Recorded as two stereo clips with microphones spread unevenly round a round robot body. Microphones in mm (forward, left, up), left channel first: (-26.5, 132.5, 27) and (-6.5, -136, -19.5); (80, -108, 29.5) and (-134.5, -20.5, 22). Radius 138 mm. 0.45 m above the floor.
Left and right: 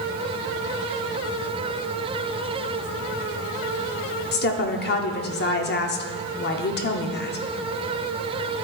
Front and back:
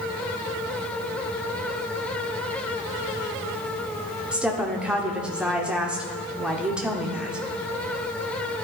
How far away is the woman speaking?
About 0.7 m.